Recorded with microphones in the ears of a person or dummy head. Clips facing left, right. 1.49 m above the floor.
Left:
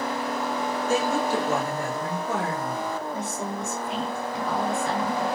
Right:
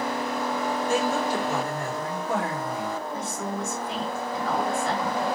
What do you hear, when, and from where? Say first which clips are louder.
0.9 s a woman speaking: left 2 dB; 80° left, 1.8 m; by 2.9 s 55° left (ahead or behind), 2.5 m
3.1 s a woman speaking: even; 45° left (ahead or behind), 2.5 m